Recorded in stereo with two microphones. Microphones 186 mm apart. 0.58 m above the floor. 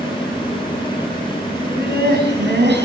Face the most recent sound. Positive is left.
turn(degrees=-75)  # may be behind; listen again after turning